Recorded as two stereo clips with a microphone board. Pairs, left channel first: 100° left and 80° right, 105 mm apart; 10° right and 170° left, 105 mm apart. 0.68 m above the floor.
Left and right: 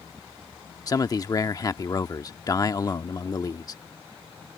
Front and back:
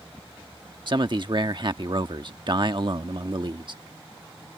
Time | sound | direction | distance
0.9 | a man speaking | 145° left | ?